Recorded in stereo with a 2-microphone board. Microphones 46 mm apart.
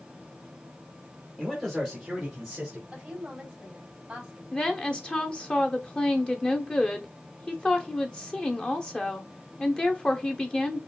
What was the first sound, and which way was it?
A man speaking, centre (ahead or behind).